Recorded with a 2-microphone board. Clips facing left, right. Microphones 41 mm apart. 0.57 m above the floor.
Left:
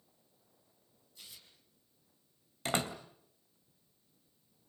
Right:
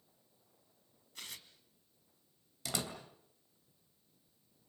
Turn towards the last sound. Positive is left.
turn(degrees=40)  # may be behind; listen again after turning